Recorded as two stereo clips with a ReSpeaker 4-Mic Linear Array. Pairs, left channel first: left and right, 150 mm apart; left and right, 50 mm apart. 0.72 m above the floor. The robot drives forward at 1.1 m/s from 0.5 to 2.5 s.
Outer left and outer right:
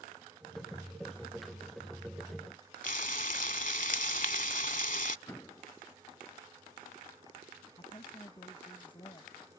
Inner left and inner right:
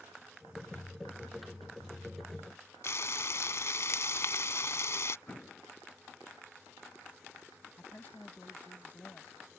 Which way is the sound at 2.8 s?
60° left (ahead or behind).